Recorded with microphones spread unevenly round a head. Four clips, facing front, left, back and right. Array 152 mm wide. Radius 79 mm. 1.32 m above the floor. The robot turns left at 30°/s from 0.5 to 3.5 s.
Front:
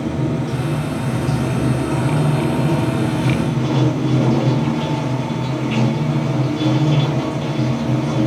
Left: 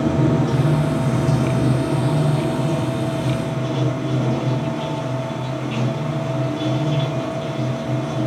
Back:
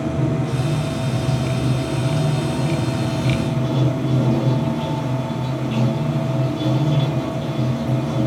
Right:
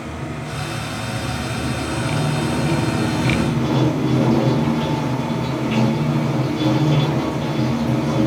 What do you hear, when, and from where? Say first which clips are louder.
0.0 s running water: left 11 dB, front 1 dB; 50° left, 1.0 m; by 8.3 s 40° right, 1.0 m